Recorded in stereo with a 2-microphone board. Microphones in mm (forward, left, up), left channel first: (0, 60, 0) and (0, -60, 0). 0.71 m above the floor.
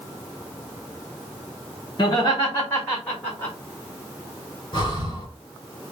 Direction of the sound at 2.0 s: 35° left (ahead or behind).